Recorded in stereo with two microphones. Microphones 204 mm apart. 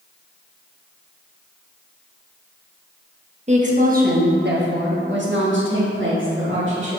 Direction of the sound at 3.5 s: 35° right (ahead or behind).